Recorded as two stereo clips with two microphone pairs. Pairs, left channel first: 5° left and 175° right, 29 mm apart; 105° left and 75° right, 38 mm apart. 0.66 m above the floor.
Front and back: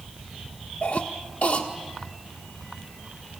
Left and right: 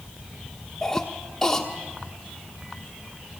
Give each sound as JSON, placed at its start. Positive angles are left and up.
{"t": 0.8, "sound": "a cough", "azimuth_deg": 25, "distance_m": 1.5}